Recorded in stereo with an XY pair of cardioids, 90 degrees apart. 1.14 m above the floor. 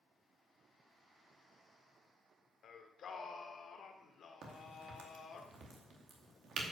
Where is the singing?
65° left, 1.6 m.